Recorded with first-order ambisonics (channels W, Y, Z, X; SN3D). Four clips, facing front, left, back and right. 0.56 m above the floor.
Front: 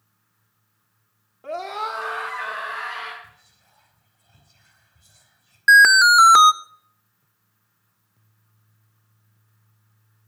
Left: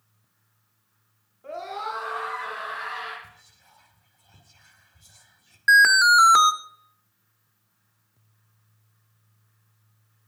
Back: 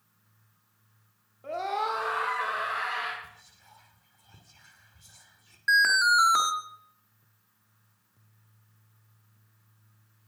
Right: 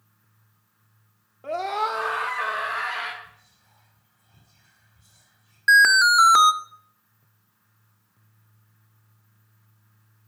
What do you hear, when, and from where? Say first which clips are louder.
1.4 s a scream: right 7 dB, front 2 dB; 70° right, 0.8 m; by 3.1 s 115° right, 3 m
3.2 s whispering: even, back 1 dB; 150° left, 2 m
5.7 s an alarm: even, front 10 dB; 5° right, 0.6 m